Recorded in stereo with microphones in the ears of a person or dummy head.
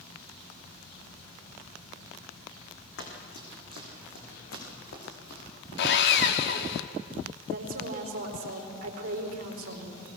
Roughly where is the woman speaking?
Right.